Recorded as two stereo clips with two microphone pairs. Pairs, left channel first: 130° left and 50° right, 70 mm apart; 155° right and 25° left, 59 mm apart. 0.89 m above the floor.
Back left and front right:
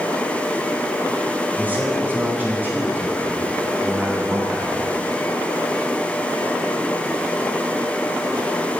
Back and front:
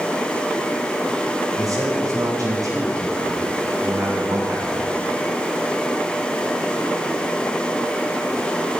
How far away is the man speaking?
About 3.5 m.